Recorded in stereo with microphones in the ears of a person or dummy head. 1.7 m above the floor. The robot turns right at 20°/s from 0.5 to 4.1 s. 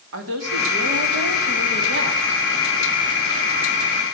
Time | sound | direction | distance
0.1 | a woman speaking | 95° right | 3 m